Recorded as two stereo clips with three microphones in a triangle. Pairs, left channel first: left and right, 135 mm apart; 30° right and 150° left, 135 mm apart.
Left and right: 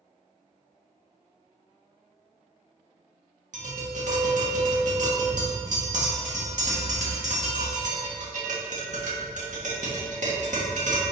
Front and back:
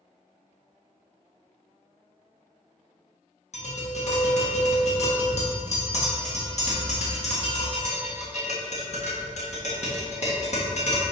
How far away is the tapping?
About 1.6 m.